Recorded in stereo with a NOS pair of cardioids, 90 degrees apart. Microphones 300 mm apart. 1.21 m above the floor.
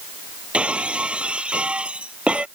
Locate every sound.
0.5 s breaking glass: 5° right